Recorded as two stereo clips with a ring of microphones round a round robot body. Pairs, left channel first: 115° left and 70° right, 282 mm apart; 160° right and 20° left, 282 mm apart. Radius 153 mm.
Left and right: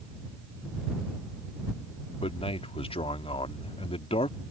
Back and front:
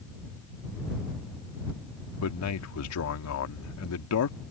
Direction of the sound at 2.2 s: Straight behind.